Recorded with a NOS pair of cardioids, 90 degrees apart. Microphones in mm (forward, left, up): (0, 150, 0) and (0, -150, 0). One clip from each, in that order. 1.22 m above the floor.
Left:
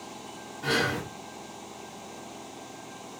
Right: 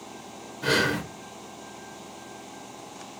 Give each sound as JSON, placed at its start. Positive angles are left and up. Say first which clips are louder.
{"t": 0.6, "sound": "breathing", "louder": "right 3 dB", "azimuth_deg": -40, "distance_m": 0.9}